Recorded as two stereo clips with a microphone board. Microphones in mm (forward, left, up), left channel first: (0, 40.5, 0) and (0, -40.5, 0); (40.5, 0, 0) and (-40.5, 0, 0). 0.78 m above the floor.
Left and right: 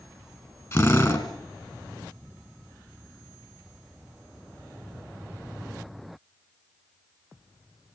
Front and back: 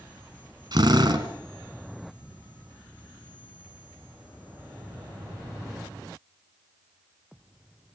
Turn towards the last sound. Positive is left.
turn(degrees=145)